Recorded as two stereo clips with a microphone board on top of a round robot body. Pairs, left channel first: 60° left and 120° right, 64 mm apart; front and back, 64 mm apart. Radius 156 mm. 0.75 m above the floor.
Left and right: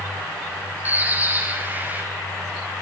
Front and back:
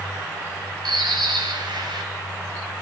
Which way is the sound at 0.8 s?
175° left.